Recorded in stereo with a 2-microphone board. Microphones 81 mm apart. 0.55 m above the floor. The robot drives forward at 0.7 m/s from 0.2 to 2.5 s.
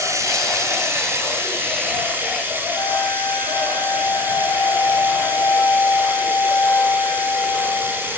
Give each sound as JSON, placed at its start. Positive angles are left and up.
{"t": 0.0, "sound": "running water", "side_deg": -40, "distance_m": 2.5}
{"t": 2.8, "sound": "a flute", "side_deg": 55, "distance_m": 5.0}